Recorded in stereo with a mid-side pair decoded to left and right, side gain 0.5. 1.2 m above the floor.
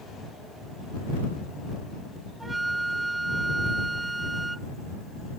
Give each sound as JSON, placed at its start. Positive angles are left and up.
{"t": 2.4, "sound": "a flute", "azimuth_deg": -15}